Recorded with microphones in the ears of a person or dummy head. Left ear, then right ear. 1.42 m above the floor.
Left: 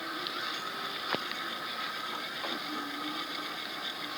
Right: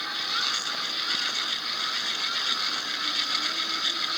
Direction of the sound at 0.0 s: 60° right (ahead or behind).